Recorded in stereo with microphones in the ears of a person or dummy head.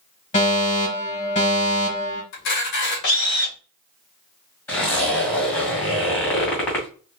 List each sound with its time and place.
0.3 s a fire alarm: 40° left (ahead or behind), 3 m
2.3 s a camera shutter: 65° left (ahead or behind), 2.0 m
4.7 s a zipper: 10° left (ahead or behind), 2 m